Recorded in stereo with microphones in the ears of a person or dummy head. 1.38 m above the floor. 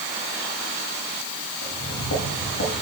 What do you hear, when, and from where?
1.6 s footsteps: 75° left (ahead or behind), 4.5 m